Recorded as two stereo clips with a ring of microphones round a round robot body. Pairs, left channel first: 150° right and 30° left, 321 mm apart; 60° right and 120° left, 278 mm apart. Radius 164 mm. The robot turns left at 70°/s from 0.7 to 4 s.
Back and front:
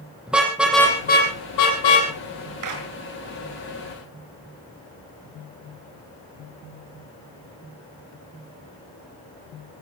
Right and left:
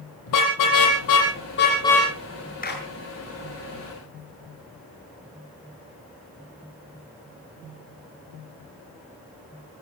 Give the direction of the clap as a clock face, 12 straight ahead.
12 o'clock.